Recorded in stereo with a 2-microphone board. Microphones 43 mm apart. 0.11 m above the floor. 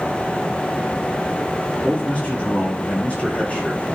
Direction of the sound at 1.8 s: 30° left (ahead or behind).